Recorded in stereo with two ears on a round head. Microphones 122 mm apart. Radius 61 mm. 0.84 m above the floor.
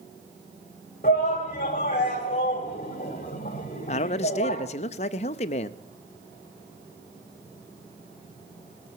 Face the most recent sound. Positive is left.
turn(degrees=50)  # may be behind; listen again after turning